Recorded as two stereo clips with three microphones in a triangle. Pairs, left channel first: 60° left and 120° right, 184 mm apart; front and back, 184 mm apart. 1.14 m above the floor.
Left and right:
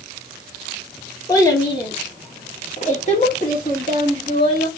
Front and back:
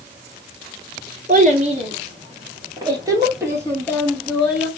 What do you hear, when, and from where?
1.3 s a child speaking: 135° left, 1.8 m; by 4.7 s 95° left, 2.5 m